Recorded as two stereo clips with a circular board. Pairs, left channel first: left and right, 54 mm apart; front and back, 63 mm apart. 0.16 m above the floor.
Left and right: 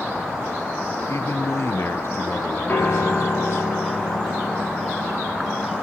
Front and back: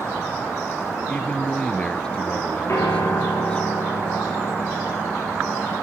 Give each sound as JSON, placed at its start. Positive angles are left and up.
{"t": 1.1, "sound": "a man speaking", "azimuth_deg": 70, "distance_m": 2.5}
{"t": 2.7, "sound": "a piano", "azimuth_deg": 35, "distance_m": 9.0}